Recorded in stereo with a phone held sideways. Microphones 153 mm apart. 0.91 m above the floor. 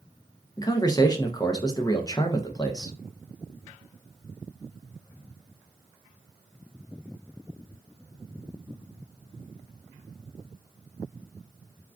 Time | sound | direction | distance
0.6 | a man speaking | 25° left (ahead or behind) | 0.6 m